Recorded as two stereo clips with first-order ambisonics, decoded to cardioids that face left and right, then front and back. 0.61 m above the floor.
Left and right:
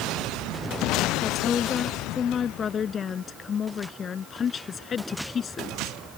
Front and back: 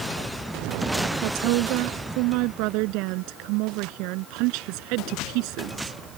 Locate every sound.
1.2 s a woman speaking: 155° left